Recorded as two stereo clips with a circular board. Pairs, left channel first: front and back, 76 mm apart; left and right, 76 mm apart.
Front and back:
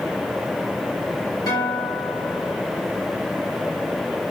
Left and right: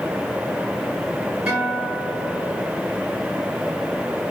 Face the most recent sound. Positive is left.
turn(degrees=-15)